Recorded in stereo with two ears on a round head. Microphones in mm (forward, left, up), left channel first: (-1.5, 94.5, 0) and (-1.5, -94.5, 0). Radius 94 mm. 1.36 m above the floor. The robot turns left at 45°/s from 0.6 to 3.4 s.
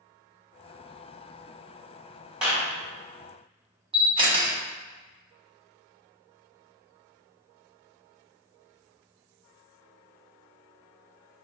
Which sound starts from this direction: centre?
A clap, at 2.4 s.